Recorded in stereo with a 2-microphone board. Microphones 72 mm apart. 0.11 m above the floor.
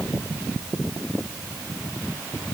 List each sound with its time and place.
Only background noise.